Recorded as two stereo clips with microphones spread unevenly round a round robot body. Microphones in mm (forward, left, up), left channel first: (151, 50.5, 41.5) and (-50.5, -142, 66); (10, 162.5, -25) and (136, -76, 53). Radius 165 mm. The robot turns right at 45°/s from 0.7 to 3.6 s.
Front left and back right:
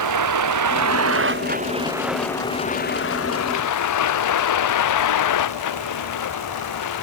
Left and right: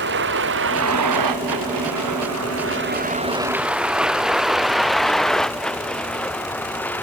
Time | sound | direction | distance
0.0 | a vehicle | 120° right | ?